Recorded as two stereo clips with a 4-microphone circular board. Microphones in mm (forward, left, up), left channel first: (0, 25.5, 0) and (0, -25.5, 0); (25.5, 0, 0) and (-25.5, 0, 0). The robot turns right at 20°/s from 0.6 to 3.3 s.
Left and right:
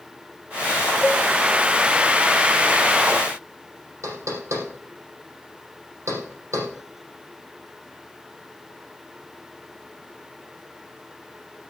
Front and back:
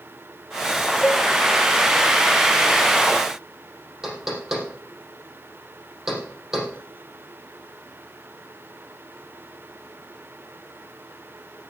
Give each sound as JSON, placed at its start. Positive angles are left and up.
{"t": 1.0, "sound": "a cowbell", "azimuth_deg": 30, "distance_m": 1.3}
{"t": 4.0, "sound": "knocking", "azimuth_deg": -100, "distance_m": 4.5}